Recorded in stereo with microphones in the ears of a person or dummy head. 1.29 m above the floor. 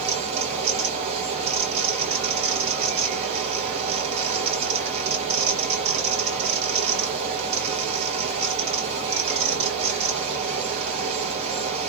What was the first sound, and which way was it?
A fan, 30° right (ahead or behind).